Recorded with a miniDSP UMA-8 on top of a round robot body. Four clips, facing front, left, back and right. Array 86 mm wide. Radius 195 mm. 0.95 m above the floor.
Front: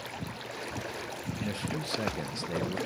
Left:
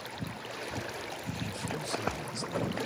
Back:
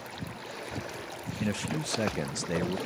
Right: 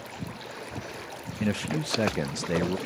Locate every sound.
1.4 s a man speaking: 105° right, 0.6 m